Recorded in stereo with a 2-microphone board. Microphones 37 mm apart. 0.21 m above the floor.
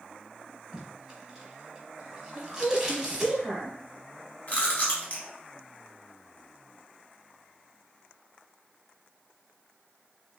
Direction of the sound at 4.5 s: 40° left (ahead or behind).